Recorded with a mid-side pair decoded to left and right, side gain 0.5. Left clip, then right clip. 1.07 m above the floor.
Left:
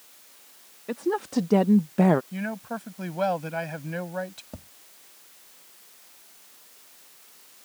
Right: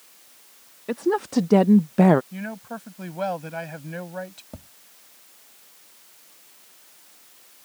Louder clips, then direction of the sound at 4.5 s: Right 1 dB; 5° right.